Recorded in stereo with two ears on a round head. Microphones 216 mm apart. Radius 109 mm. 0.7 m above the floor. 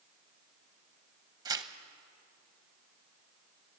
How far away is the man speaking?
No man speaking in this recording.